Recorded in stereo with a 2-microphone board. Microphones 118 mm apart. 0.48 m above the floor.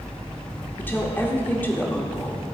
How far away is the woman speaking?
About 1.2 m.